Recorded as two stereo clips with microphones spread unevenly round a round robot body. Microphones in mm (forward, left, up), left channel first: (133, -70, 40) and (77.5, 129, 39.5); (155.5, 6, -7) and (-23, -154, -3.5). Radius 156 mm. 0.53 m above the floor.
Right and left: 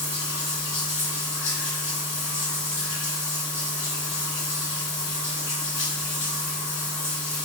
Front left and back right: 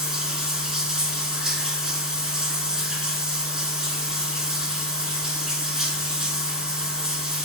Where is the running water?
50° right, 2 m.